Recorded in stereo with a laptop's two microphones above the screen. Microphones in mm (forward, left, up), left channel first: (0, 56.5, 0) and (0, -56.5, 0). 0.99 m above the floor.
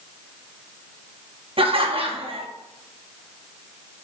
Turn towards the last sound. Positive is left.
turn(degrees=-55)  # may be behind; listen again after turning